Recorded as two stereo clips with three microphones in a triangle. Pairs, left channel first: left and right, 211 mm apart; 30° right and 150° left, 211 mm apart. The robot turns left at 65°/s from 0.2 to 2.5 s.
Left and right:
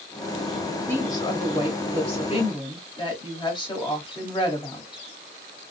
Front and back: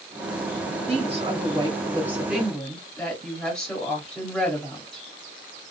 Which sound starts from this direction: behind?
A woman speaking, at 0.9 s.